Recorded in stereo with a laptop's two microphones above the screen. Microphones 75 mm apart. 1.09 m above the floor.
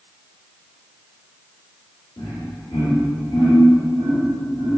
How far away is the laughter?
About 2.0 m.